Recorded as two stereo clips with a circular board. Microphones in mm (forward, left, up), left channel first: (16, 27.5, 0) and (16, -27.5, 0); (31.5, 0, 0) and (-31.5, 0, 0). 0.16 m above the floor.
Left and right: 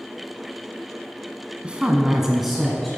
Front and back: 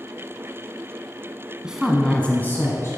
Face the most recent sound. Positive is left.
turn(degrees=5)